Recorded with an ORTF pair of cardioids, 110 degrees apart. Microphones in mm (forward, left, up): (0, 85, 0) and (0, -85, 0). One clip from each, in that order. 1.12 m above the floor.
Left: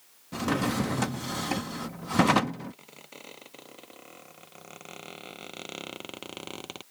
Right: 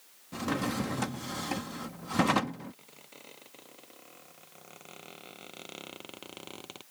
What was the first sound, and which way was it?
A drawer, 20° left.